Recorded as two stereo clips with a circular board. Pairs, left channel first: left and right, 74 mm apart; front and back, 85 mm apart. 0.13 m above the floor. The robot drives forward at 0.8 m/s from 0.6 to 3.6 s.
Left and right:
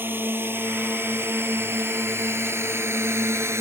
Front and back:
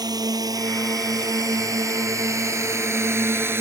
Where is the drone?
150° right; by 3.6 s 125° right.